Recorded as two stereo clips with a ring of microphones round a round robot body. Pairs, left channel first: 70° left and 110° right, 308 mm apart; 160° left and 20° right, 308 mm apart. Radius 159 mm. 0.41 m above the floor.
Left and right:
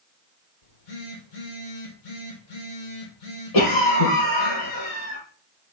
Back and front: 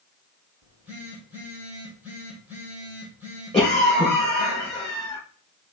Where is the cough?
80° left, 6.5 m.